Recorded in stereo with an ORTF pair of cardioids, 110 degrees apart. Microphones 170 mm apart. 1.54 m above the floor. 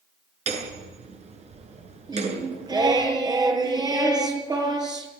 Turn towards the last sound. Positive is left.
turn(degrees=-25)